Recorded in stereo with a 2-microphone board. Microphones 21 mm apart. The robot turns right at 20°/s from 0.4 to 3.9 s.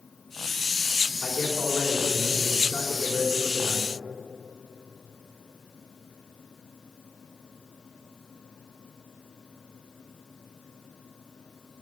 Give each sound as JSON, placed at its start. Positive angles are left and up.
{"t": 1.2, "sound": "a man speaking", "azimuth_deg": 85, "distance_m": 3.0}